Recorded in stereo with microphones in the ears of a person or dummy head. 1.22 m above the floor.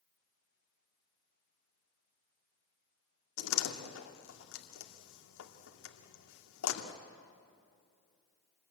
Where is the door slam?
80° left, 2 m.